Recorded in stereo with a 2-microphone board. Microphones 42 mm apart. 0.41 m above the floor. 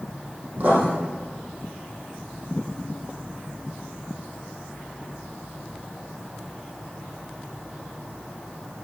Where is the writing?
40° right (ahead or behind), 4.5 m.